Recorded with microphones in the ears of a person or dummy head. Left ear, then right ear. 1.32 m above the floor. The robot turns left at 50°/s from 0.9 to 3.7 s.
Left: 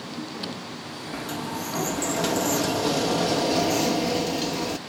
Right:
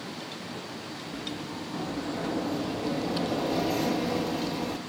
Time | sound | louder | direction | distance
1.1 | a sliding door | left 7 dB | 150° left | ?